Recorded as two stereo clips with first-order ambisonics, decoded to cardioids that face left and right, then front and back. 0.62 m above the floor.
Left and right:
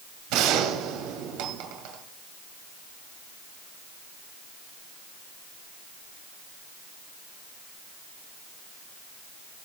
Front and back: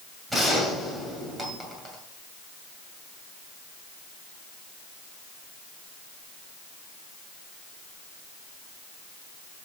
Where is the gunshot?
100° right, 2.5 m.